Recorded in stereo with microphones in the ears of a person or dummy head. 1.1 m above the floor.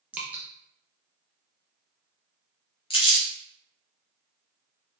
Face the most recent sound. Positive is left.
turn(degrees=20)  # may be behind; listen again after turning